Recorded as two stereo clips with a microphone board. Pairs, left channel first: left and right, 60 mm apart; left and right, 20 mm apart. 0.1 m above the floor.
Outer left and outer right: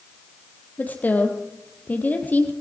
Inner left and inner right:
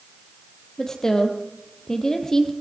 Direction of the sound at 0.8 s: 30° left (ahead or behind).